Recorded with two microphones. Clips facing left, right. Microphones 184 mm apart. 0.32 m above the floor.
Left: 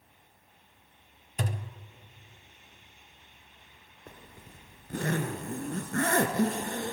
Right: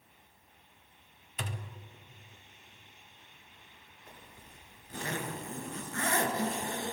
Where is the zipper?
60° left (ahead or behind), 1.0 m.